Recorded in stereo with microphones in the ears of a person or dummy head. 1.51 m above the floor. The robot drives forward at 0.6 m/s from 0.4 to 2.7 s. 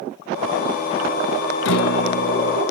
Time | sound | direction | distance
1.6 | a guitar | 70° left (ahead or behind) | ?